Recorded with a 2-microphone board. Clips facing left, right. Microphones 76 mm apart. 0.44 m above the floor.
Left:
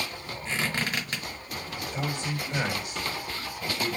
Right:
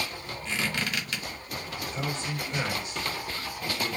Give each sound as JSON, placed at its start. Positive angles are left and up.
{"t": 0.5, "sound": "a squeak", "side_deg": 35, "distance_m": 0.9}
{"t": 1.8, "sound": "a man speaking", "side_deg": 10, "distance_m": 1.8}